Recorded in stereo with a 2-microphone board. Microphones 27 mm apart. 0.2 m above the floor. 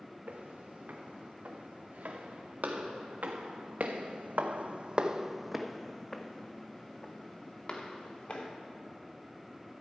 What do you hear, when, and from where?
0.3 s footsteps: 70° right (ahead or behind), 3 m; by 8.5 s 45° left (ahead or behind), 2 m